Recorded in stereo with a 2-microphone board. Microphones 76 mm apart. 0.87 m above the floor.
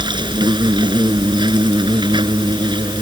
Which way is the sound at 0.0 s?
85° right.